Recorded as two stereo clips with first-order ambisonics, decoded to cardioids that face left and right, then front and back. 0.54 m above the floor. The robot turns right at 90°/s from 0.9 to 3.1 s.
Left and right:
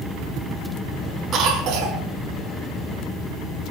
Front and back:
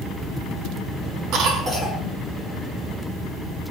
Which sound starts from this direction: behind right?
A cough, at 1.3 s.